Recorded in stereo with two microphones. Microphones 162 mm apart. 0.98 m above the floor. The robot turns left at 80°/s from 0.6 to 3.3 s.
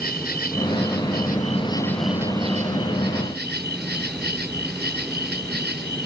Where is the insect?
115° left; by 6.1 s 100° right.